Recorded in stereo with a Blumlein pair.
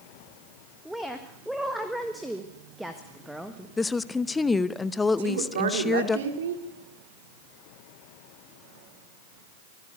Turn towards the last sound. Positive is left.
turn(degrees=-65)